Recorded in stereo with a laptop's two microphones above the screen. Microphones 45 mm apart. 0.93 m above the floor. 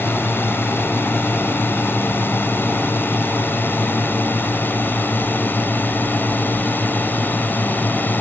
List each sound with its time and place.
0.0 s a drone: 60° left (ahead or behind); by 8.2 s 45° left (ahead or behind)